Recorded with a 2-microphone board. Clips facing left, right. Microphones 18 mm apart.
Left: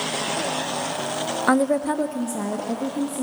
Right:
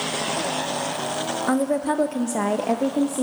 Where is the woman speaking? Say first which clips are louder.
Left 3 dB; 30° left (ahead or behind), 0.8 m; by 3.2 s 65° right (ahead or behind), 1.9 m.